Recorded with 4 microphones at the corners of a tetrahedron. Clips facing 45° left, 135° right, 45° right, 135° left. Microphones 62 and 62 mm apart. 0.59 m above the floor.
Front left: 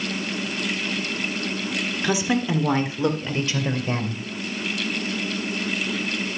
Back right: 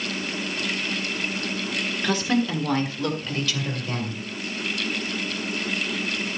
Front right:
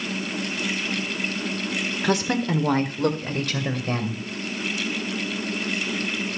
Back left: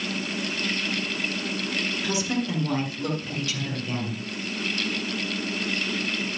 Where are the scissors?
No scissors in this recording.